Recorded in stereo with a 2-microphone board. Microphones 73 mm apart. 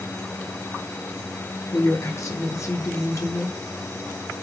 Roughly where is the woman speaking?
Left.